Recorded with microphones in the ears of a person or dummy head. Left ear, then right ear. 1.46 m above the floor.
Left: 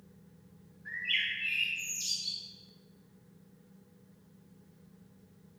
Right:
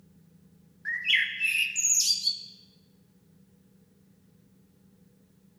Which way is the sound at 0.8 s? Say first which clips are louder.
Right 6 dB; 60° right (ahead or behind).